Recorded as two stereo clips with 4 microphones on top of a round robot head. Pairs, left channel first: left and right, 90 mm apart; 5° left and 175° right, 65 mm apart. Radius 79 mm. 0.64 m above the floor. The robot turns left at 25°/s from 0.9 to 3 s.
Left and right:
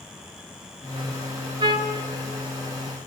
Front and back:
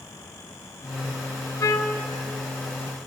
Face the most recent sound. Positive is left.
turn(degrees=-90)